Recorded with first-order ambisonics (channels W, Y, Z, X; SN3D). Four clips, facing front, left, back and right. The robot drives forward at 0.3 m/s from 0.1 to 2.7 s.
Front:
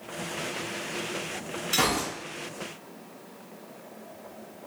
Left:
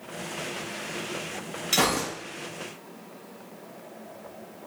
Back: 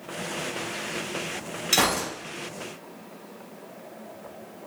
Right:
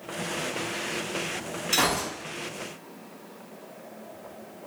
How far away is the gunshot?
About 2 m.